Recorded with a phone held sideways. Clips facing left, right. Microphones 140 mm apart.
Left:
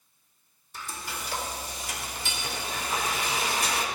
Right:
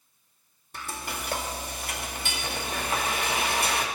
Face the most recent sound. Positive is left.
turn(degrees=-60)  # may be behind; listen again after turning